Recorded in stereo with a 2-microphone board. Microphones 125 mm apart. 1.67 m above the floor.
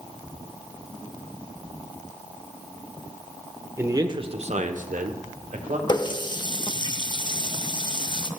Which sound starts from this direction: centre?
A man speaking, at 3.8 s.